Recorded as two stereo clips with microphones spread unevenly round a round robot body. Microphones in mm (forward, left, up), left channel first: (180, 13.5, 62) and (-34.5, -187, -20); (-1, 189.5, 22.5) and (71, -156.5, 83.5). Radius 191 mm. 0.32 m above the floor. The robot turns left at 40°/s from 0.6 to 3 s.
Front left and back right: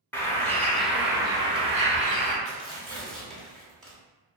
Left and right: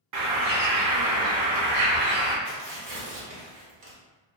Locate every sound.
0.1 s a bird: 55° right, 0.8 m; by 2.4 s 125° right, 0.8 m
2.5 s tearing paper: 35° right, 1.1 m; by 4.0 s 55° right, 1.1 m